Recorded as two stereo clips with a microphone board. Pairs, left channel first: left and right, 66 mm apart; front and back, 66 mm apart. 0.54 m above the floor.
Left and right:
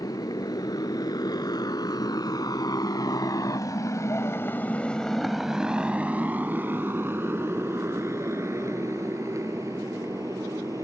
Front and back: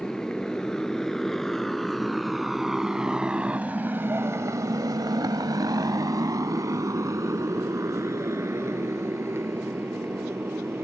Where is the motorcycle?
80° left; by 10.8 s 130° right.